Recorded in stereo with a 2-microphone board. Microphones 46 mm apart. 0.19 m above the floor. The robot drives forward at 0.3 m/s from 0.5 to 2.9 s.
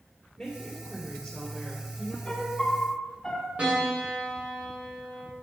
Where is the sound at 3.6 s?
35° right (ahead or behind), 5 m.